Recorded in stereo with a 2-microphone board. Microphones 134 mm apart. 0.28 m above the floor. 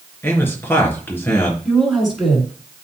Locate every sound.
0.2 s a man speaking: 15° left (ahead or behind), 3 m
1.6 s a woman speaking: centre (ahead or behind), 3 m